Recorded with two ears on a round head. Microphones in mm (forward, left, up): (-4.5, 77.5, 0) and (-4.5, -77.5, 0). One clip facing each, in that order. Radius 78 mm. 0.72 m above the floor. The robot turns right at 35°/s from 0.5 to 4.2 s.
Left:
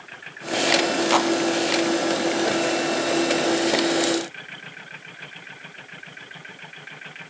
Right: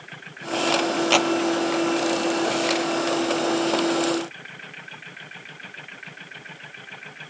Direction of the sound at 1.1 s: 30° right (ahead or behind).